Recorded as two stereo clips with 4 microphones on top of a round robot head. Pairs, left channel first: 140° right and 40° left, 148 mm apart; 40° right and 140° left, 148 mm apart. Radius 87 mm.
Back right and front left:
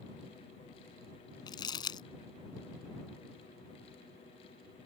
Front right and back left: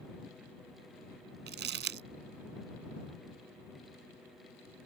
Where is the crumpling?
155° left.